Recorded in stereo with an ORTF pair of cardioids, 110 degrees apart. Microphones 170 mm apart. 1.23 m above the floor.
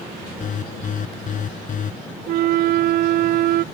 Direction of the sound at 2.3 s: 65° right.